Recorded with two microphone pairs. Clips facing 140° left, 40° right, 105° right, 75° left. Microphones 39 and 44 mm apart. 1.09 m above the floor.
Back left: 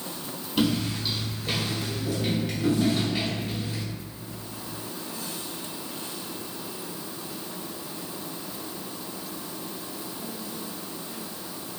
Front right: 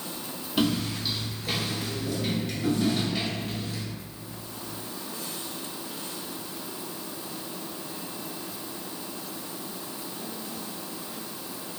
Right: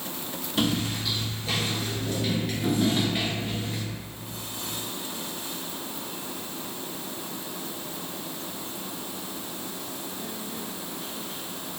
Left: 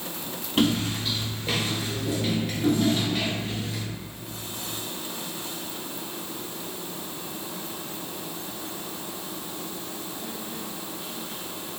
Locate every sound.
0.6 s footsteps: 40° left, 1.7 m; by 3.8 s 145° right, 1.4 m